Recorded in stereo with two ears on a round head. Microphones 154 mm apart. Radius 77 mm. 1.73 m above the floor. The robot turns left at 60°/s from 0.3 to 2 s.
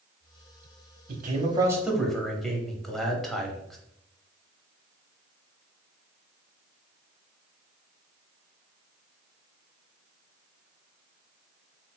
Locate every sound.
1.1 s a man speaking: 125° right, 0.7 m; by 3.8 s straight behind, 0.7 m